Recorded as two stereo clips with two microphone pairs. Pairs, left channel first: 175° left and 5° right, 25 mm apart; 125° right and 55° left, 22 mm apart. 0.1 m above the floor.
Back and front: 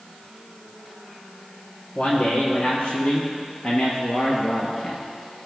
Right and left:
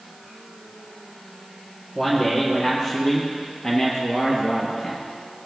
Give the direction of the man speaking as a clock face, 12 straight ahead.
6 o'clock.